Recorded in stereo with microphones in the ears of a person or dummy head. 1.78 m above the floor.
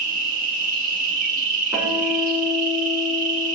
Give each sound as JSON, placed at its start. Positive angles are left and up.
{"t": 0.0, "sound": "an insect", "side_deg": -45, "distance_m": 1.8}
{"t": 1.7, "sound": "a guitar", "side_deg": -20, "distance_m": 6.5}